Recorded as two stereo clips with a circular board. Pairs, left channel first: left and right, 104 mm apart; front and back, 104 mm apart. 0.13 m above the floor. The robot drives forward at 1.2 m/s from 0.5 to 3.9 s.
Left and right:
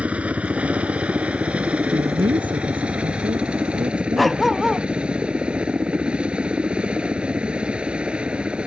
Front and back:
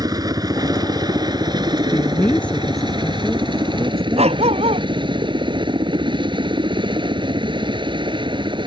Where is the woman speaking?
60° right; by 4.5 s 120° right.